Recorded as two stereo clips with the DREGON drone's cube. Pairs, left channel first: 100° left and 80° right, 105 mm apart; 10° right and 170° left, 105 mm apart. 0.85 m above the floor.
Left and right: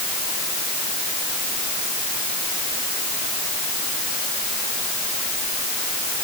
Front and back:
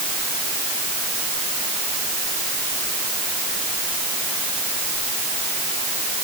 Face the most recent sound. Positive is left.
No sound to turn to.